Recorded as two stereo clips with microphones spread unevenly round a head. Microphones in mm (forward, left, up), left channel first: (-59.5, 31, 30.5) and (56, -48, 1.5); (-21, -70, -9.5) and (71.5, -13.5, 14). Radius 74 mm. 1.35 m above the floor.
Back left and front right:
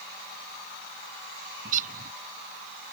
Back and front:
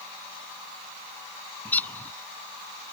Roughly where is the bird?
Ahead right.